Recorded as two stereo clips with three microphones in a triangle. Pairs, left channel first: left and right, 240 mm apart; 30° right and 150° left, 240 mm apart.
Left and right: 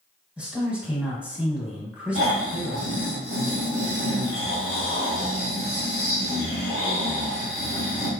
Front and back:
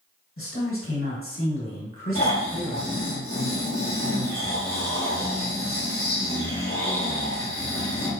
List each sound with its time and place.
0.4 s a man speaking: 5° right, 1.7 m
2.1 s snoring: 75° right, 1.9 m